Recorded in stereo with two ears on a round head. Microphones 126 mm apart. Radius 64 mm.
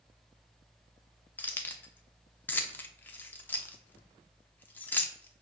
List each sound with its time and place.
1.4 s keys jangling: 15° left (ahead or behind), 0.6 m